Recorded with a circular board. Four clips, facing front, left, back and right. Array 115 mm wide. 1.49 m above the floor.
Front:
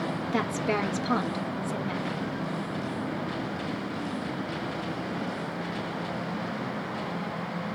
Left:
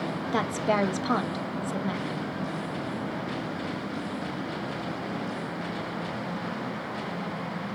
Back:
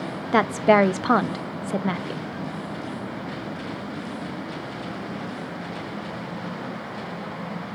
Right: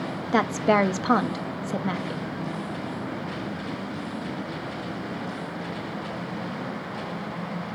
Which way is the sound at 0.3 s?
160° right.